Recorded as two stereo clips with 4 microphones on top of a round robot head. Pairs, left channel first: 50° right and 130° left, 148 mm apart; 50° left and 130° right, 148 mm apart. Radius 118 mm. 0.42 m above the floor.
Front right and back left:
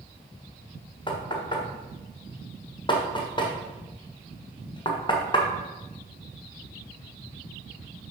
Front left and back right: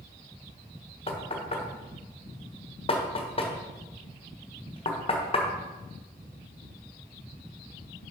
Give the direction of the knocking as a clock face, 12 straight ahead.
12 o'clock.